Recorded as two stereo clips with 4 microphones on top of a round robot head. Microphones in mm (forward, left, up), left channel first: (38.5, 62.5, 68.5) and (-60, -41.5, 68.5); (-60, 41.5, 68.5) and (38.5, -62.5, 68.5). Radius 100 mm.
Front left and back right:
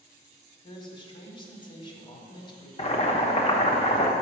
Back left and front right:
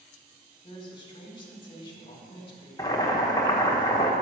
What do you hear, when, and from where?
0.6 s a man speaking: 90° left, 1.5 m
2.8 s boiling: 75° left, 1.0 m